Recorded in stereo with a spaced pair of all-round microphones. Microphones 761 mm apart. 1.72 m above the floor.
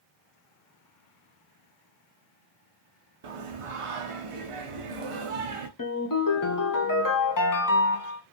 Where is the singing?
50° right (ahead or behind), 0.5 m.